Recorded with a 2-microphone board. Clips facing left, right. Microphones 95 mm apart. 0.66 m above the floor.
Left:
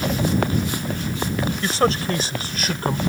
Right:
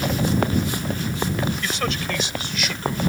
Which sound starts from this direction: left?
A man speaking, at 1.6 s.